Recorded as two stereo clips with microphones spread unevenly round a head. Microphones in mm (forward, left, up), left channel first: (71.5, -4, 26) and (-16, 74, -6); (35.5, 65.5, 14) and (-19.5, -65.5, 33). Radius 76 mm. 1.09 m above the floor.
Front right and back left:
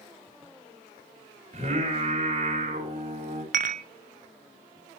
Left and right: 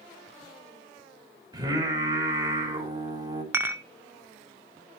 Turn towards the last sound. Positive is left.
turn(degrees=170)